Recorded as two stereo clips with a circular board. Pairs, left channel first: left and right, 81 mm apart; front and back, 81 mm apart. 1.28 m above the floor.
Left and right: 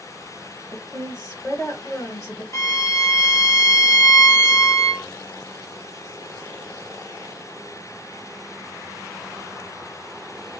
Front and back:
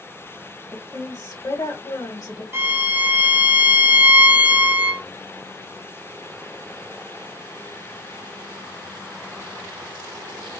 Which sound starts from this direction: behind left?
A violin, at 2.5 s.